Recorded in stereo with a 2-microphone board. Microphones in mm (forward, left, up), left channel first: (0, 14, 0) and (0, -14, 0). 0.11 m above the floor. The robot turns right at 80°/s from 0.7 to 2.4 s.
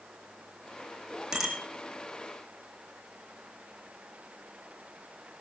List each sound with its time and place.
1.3 s a bicycle bell: 15° right (ahead or behind), 4.5 m; by 1.6 s 5° left (ahead or behind), 4.5 m